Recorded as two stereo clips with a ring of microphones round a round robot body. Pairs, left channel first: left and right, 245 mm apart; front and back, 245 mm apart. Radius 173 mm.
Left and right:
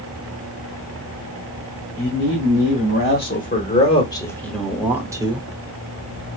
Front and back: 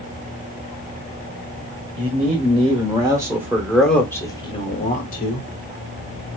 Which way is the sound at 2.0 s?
120° left.